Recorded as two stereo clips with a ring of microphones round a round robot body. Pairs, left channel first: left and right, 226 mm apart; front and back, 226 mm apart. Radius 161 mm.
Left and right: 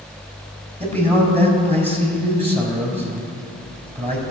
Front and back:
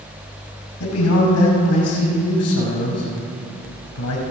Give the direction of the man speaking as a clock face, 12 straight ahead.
1 o'clock.